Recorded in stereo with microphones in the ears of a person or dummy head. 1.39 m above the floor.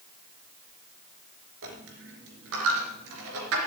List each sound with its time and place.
1.6 s a dropped coin: 60° right (ahead or behind), 3 m